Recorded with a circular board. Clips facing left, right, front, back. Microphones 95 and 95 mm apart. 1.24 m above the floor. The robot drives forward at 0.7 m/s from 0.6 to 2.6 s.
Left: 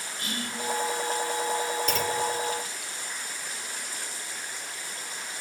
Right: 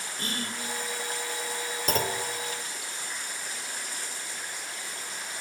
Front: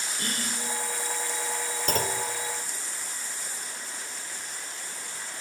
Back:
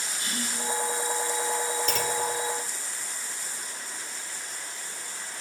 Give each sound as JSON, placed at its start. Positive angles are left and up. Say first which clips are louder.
{"t": 0.2, "sound": "whispering", "louder": "even, front 1 dB", "azimuth_deg": -40, "distance_m": 3.5}
{"t": 1.9, "sound": "a clunk", "louder": "right 3 dB, even", "azimuth_deg": -45, "distance_m": 1.6}